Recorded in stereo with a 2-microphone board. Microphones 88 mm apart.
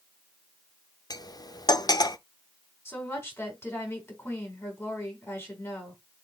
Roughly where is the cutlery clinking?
Left.